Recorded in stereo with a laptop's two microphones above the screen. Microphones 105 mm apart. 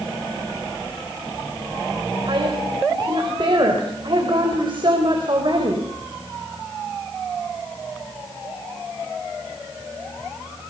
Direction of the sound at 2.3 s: 50° right (ahead or behind).